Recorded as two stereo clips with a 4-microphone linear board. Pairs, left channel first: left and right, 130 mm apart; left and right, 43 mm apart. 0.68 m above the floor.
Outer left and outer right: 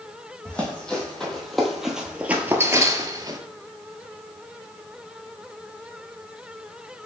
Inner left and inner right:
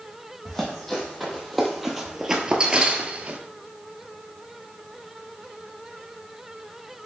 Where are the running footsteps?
10° left (ahead or behind), 1.7 m; by 3.4 s 30° right (ahead or behind), 0.7 m.